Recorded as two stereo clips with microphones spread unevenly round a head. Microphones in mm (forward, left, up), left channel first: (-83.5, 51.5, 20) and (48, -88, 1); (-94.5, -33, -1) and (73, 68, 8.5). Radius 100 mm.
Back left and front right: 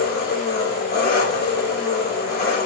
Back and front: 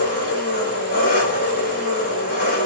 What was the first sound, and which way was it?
An engine running, 165° left.